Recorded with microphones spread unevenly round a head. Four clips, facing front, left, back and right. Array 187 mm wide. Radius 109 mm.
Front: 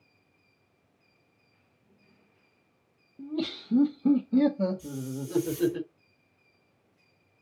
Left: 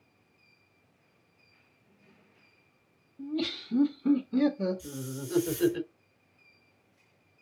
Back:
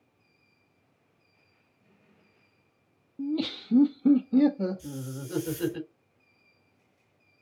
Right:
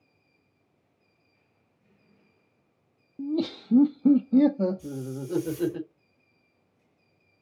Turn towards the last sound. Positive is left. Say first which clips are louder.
# right 4 dB, front 3 dB
turn(degrees=-75)